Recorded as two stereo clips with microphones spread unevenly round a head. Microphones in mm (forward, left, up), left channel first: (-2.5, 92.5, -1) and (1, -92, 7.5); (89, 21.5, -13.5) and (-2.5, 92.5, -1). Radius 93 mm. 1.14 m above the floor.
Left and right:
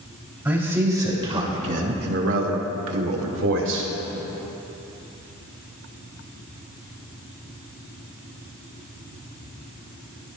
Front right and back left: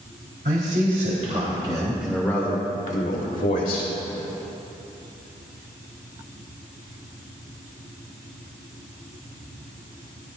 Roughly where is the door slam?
No door slam in this recording.